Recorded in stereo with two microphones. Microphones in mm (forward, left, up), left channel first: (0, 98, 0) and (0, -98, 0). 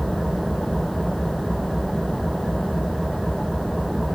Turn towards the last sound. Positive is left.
turn(degrees=0)  # may be behind; listen again after turning